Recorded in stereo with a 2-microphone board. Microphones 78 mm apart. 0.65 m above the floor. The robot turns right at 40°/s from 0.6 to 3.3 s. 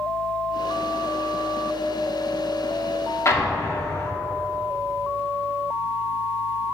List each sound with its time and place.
3.2 s an explosion: 35° left (ahead or behind), 0.8 m